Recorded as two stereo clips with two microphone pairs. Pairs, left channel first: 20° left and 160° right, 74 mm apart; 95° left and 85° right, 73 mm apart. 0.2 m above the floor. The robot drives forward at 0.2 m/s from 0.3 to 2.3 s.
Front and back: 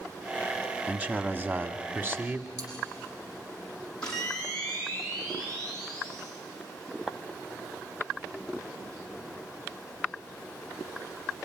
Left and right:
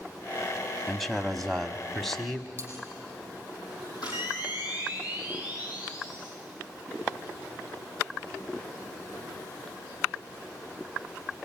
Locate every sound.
0.9 s a man speaking: 175° right, 1.1 m
2.6 s cutlery clinking: 130° right, 5 m
4.0 s a camera shutter: 95° left, 7 m